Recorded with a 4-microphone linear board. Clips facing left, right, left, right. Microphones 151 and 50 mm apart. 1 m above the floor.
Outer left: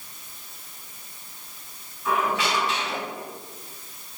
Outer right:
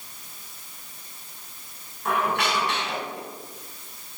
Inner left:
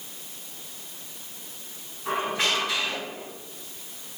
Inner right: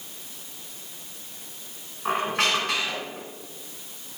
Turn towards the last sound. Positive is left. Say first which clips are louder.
# even, inner right 2 dB
turn(degrees=-70)  # may be behind; listen again after turning